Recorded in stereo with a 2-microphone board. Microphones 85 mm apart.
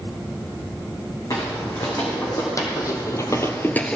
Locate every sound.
1.3 s footsteps: 40° left (ahead or behind), 3 m; by 4.0 s 10° left (ahead or behind), 0.7 m